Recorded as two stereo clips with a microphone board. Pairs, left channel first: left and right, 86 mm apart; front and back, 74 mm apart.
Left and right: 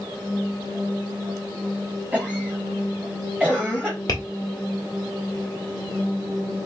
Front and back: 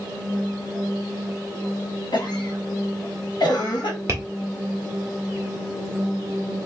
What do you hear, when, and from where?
2.1 s a cough: 15° right, 1.1 m
4.1 s tapping: 130° left, 1.4 m